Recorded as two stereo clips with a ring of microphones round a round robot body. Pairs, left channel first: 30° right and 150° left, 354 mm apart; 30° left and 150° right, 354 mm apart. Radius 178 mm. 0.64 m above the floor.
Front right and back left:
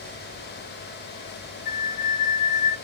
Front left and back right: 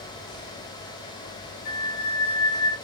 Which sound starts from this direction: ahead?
A flute, at 1.6 s.